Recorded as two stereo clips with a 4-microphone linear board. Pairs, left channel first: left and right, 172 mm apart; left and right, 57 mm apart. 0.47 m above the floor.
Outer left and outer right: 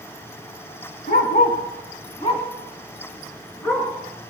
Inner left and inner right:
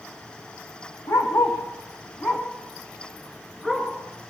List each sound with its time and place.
1.1 s a dog barking: 65° left (ahead or behind), 2 m; by 3.9 s 15° left (ahead or behind), 3 m